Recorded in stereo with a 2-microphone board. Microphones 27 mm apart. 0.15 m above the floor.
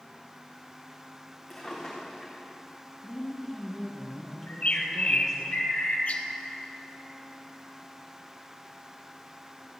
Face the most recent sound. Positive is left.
turn(degrees=50)  # may be behind; listen again after turning